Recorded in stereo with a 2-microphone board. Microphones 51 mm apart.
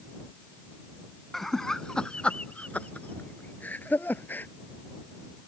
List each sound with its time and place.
1.3 s laughter: 5° left (ahead or behind); by 4.5 s 35° left (ahead or behind)